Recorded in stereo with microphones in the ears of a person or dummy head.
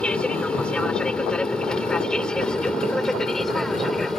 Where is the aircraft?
10° left (ahead or behind); by 4.2 s centre (ahead or behind).